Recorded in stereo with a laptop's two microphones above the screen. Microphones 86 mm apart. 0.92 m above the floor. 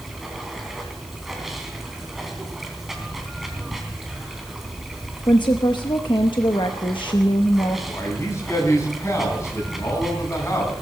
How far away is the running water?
About 3 m.